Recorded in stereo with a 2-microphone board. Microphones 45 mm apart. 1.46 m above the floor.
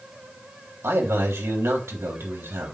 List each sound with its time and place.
0.8 s a man speaking: 85° right, 3.5 m